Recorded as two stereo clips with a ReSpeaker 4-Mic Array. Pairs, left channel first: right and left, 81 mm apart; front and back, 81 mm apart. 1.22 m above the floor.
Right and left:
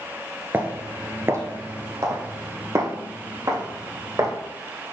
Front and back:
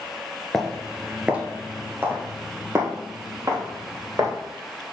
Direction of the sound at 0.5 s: 80° left.